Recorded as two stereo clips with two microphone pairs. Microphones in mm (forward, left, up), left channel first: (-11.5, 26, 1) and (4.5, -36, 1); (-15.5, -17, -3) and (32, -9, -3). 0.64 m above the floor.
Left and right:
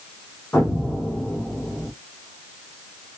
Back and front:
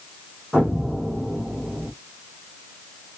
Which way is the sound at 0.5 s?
70° left.